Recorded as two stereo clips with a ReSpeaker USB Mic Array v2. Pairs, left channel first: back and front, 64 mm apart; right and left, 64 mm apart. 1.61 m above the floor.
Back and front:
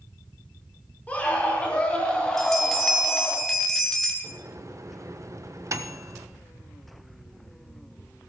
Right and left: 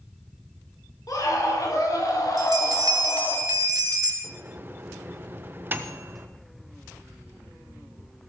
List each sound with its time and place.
1.1 s a scream: 110° right, 5.5 m; by 3.4 s 95° right, 4 m
2.4 s a bell: 95° left, 2 m
4.2 s a microwave: 35° left, 1.1 m